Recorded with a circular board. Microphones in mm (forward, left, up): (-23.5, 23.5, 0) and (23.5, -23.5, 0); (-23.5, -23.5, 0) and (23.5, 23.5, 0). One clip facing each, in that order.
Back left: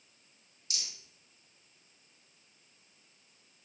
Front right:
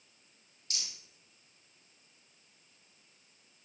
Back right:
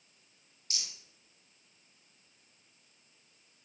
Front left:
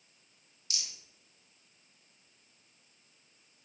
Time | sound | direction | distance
0.7 | a rattle | 80° right | 4 m